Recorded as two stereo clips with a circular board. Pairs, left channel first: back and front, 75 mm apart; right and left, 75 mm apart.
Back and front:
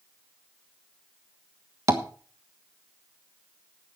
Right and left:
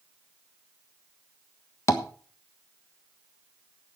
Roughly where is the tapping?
Ahead right.